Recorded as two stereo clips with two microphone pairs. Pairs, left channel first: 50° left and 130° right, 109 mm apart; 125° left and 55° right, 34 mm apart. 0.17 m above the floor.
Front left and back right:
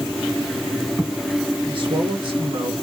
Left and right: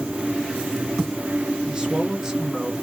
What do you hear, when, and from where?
1.7 s a man speaking: 120° right, 2 m; by 2.8 s 145° right, 1.6 m